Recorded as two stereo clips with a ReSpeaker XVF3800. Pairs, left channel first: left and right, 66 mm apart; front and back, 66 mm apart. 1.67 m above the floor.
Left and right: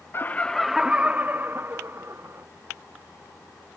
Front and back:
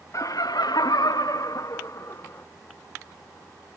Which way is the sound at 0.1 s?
35° left.